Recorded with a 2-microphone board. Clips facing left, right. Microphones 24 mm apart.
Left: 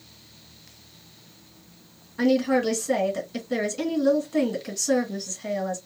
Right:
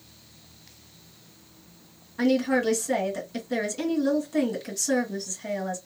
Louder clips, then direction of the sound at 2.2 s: Left 2 dB; 5° left (ahead or behind).